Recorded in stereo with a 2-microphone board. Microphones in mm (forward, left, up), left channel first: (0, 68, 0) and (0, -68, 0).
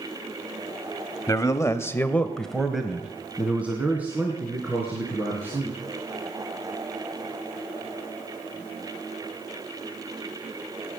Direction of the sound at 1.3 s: 25° left (ahead or behind).